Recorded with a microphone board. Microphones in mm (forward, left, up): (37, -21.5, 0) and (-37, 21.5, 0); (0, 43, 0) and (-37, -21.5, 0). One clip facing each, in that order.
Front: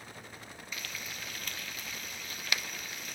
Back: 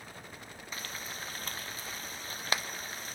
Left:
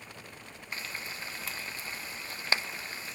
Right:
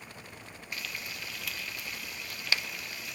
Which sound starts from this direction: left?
Frying, at 0.7 s.